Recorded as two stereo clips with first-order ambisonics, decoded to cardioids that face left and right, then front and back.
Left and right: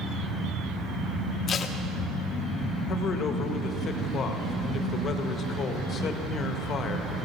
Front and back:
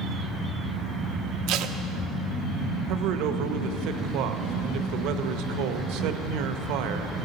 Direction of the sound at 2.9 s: 150° left.